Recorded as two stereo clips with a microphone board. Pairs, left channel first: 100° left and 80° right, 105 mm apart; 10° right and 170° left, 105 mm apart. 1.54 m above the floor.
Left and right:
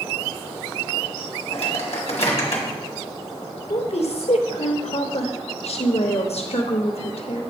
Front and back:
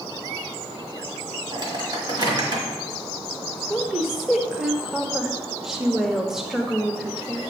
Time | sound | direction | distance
1.5 | a microwave | 125° left | 1.5 m
3.7 | a woman speaking | 80° left | 0.9 m